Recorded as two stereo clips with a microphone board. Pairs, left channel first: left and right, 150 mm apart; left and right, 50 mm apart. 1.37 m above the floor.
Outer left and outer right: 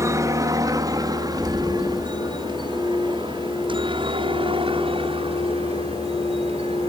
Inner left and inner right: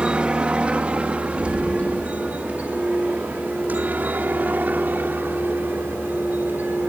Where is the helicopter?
20° right (ahead or behind); by 6.9 s 40° right (ahead or behind).